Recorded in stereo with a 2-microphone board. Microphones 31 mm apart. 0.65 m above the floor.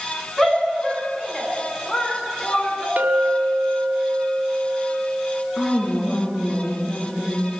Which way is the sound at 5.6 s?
25° left (ahead or behind).